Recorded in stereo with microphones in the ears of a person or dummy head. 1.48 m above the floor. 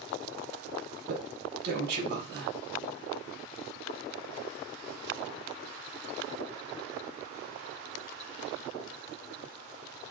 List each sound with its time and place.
1.1 s a man speaking: 55° right (ahead or behind), 1.4 m